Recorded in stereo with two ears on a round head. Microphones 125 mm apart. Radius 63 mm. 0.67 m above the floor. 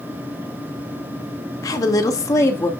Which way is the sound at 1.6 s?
25° left (ahead or behind).